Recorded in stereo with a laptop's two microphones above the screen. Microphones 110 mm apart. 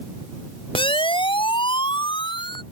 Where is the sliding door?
No sliding door in this recording.